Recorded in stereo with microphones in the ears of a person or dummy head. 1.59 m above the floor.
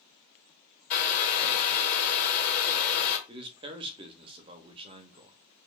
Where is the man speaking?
25° right (ahead or behind), 0.5 m.